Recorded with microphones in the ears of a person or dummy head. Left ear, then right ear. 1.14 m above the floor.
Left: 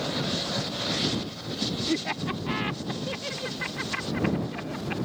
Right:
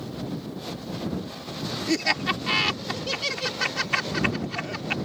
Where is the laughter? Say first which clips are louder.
Right 5 dB; 75° right (ahead or behind).